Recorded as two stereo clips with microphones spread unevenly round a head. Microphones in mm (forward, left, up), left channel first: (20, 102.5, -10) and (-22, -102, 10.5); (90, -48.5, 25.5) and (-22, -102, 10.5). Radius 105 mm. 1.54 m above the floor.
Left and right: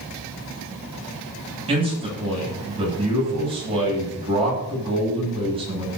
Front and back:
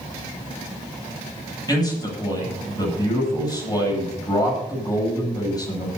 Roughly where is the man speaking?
Ahead right.